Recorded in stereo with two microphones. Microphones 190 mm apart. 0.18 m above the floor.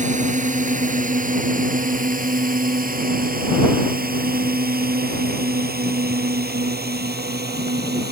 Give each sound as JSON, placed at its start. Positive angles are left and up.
{"t": 0.0, "sound": "a drone", "side_deg": -40}